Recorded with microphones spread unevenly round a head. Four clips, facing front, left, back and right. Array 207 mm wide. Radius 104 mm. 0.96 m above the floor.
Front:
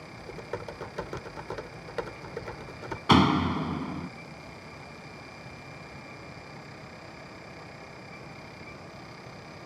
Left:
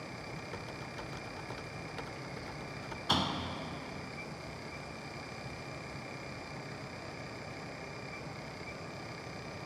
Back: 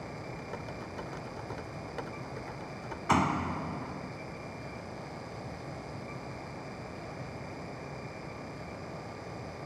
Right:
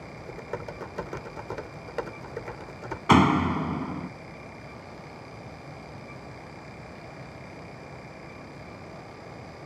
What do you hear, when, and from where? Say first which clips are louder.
0.2 s typing on a keyboard: right 7 dB, front 3 dB; 50° right
3.1 s a door slam: right 15 dB, front 6 dB; 55° right